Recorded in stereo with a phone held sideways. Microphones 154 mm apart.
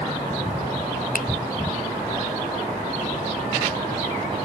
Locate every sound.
1.1 s a finger snap: 65° left (ahead or behind), 0.5 m